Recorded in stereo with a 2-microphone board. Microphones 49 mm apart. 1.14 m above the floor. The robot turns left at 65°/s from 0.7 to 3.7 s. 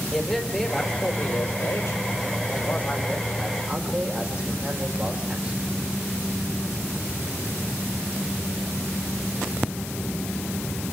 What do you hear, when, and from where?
0.1 s a man speaking: 175° left, 4.5 m; by 5.6 s 20° right, 4.5 m